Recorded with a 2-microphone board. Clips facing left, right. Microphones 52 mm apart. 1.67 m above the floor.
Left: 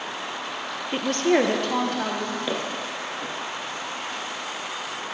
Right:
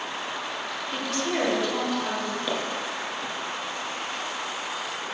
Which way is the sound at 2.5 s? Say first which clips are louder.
Even; 10° left (ahead or behind).